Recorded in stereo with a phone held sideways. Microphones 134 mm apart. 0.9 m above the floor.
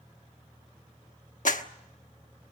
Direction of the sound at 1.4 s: 75° left (ahead or behind).